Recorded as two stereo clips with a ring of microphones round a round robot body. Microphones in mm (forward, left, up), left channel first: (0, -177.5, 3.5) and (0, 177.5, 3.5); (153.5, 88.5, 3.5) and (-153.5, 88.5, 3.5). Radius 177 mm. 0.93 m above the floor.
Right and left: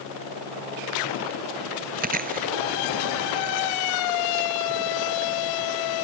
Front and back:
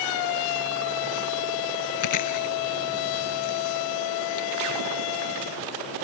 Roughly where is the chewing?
Ahead left.